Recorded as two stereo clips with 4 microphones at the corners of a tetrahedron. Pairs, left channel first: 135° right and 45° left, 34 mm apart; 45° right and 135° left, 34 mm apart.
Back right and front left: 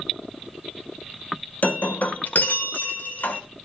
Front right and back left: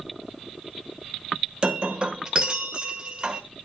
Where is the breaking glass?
165° right, 1.4 m.